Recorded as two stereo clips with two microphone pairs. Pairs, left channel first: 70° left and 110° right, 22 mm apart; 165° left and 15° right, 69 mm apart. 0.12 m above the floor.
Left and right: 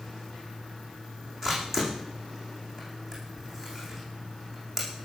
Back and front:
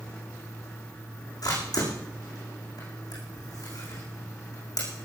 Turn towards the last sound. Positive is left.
turn(degrees=-175)